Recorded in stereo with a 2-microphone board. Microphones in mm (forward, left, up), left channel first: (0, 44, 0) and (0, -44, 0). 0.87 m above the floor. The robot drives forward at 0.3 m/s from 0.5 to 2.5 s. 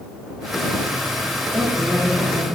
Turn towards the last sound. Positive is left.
turn(degrees=-30)  # may be behind; listen again after turning